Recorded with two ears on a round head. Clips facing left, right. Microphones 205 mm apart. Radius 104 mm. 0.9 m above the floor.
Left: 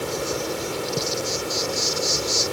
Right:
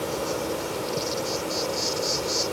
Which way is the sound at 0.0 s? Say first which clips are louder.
Left 1 dB; 25° left (ahead or behind).